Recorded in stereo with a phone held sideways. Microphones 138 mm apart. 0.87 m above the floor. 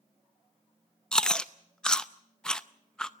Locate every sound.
1.1 s chewing: 5° left (ahead or behind), 0.5 m